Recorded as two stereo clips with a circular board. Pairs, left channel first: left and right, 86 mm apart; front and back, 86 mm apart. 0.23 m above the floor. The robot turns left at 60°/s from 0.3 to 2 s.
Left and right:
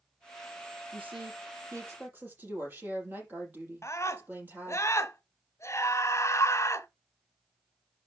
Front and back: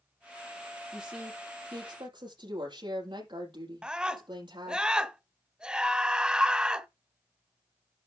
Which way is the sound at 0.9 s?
95° right.